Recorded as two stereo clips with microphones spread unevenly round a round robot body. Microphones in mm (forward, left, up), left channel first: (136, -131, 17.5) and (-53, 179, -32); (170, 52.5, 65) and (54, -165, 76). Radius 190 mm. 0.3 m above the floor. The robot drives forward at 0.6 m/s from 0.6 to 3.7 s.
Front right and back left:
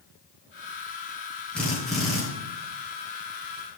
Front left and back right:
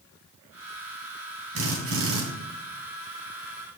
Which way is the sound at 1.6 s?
150° right.